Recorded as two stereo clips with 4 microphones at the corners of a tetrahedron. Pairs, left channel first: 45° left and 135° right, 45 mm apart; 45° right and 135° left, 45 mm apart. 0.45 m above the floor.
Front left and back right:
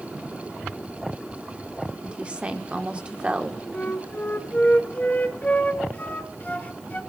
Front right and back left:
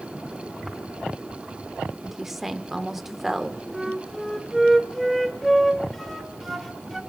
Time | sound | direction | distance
2.0 | a woman speaking | 150° right | 1.0 m
3.7 | a flute | 40° left | 1.5 m